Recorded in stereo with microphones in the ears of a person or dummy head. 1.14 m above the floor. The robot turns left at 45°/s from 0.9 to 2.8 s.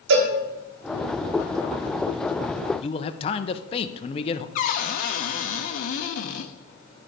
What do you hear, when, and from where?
0.1 s a cowbell: 75° right (ahead or behind), 2.5 m
2.8 s a man speaking: 30° left (ahead or behind), 0.6 m
4.5 s a cupboard door: 50° left (ahead or behind), 0.6 m